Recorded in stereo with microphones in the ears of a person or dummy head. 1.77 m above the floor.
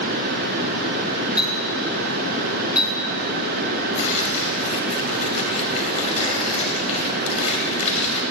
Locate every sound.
1.4 s a clink: 5° right (ahead or behind), 2.5 m
4.0 s tearing paper: 35° left (ahead or behind), 2.5 m